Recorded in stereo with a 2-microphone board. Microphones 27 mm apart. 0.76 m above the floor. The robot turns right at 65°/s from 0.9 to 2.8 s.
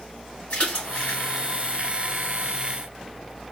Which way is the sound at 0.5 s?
40° left (ahead or behind).